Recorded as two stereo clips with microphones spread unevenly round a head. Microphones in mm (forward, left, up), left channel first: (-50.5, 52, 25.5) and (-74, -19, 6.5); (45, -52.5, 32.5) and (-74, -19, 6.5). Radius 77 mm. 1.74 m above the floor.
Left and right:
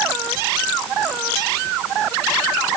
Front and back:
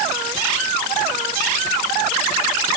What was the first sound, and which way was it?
Only background noise.